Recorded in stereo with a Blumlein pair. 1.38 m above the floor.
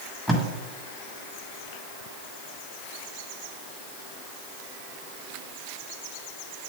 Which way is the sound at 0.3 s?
Straight ahead.